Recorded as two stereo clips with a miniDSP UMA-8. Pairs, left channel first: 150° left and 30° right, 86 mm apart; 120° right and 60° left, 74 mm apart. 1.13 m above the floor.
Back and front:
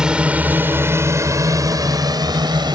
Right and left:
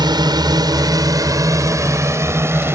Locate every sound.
0.0 s a drone: 50° left; by 2.8 s 5° left